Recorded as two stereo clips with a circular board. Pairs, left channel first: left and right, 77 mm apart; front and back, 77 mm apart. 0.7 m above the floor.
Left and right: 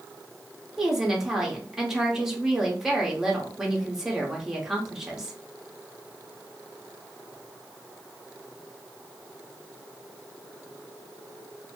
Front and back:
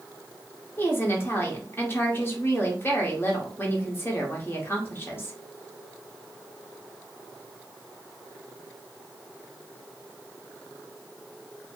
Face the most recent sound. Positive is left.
turn(degrees=-10)